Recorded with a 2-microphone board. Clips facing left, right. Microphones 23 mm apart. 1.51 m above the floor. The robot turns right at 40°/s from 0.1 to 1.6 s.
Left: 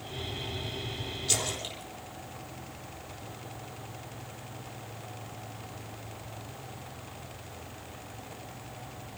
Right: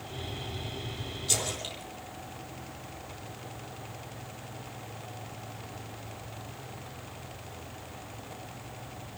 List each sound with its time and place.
1.3 s a splash: 15° left (ahead or behind), 3.5 m; by 3.4 s centre (ahead or behind), 3.5 m